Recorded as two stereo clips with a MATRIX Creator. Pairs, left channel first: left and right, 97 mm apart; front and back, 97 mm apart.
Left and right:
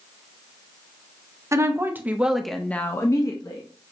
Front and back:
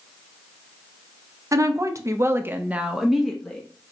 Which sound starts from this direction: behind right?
A woman speaking, at 1.5 s.